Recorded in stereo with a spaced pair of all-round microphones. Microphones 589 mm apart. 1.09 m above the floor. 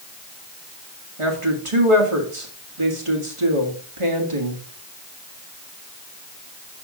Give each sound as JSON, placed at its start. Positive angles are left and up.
{"t": 1.2, "sound": "a woman speaking", "side_deg": -55, "distance_m": 1.5}